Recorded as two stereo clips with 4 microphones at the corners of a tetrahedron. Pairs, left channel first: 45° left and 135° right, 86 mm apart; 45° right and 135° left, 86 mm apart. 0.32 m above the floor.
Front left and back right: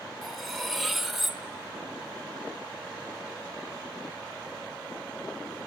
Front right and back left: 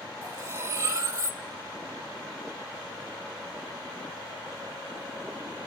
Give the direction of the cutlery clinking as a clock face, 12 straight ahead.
7 o'clock.